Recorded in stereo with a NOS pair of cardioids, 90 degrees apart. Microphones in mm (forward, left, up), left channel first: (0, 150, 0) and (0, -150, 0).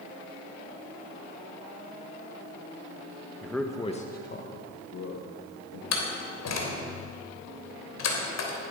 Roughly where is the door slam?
Ahead left.